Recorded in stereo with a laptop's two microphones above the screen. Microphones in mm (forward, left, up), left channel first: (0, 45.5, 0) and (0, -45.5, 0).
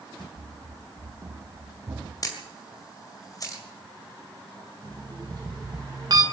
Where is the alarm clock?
50° right (ahead or behind), 2.5 m.